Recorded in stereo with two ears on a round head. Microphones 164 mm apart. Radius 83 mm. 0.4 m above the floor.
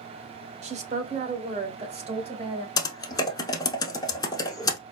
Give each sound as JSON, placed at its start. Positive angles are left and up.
{"t": 0.6, "sound": "a woman speaking", "side_deg": -35, "distance_m": 0.9}
{"t": 2.8, "sound": "typing on a keyboard", "side_deg": 20, "distance_m": 0.6}